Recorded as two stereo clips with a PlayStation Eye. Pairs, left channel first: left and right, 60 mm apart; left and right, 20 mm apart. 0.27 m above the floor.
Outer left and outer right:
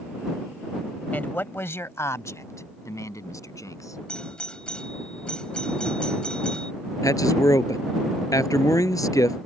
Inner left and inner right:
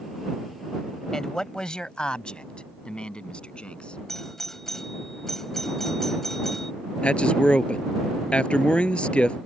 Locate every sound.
1.1 s a man speaking: 25° left (ahead or behind); by 4.0 s 65° left (ahead or behind)
4.1 s a doorbell: 15° left (ahead or behind)
7.0 s a man speaking: 65° left (ahead or behind)